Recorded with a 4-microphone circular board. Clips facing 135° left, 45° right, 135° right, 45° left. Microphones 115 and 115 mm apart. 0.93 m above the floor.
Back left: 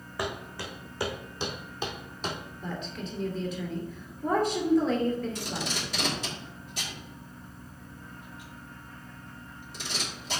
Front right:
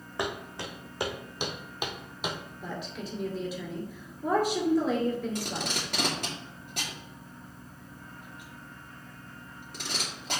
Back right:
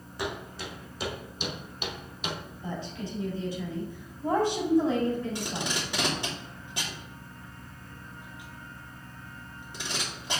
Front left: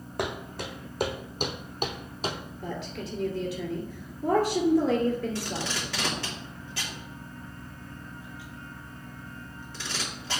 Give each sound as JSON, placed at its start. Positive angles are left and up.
{"t": 0.2, "sound": "footsteps", "azimuth_deg": 20, "distance_m": 2.0}
{"t": 2.6, "sound": "a woman speaking", "azimuth_deg": 35, "distance_m": 2.5}
{"t": 5.3, "sound": "tape being pulled", "azimuth_deg": -65, "distance_m": 2.0}